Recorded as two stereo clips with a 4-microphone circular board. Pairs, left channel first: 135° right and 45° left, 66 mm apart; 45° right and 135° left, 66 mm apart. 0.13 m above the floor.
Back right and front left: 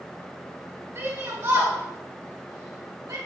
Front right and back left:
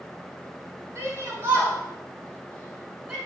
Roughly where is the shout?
Left.